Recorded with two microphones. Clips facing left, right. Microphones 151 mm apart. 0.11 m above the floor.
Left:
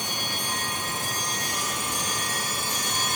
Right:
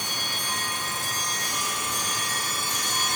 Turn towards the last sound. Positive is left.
No sound to turn to.